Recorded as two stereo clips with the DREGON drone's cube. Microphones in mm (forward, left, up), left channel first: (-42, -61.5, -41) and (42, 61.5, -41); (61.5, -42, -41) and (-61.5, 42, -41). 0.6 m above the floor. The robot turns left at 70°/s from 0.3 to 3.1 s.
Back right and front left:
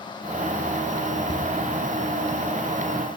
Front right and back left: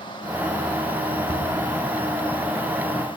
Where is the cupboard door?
75° right, 1.7 m; by 1.6 s 100° right, 1.7 m.